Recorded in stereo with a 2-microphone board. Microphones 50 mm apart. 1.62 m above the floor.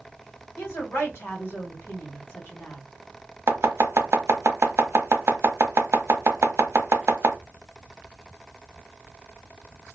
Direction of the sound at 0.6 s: 60° left (ahead or behind).